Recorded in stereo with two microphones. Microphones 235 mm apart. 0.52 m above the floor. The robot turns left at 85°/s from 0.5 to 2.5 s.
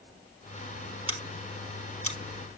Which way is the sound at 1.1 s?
20° left (ahead or behind).